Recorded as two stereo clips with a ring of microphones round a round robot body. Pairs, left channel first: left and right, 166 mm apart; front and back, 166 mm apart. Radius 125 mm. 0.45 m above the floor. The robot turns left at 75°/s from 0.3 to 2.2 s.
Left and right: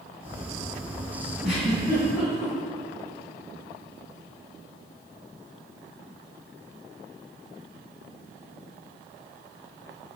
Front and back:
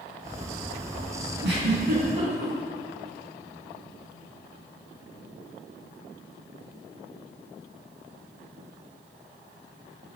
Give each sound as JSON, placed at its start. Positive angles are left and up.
{"t": 1.4, "sound": "a giggle", "azimuth_deg": -170, "distance_m": 5.5}